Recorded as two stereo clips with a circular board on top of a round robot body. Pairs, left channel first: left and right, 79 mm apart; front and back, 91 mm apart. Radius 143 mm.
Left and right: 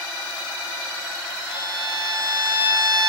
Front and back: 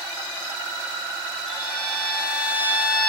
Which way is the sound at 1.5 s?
40° right.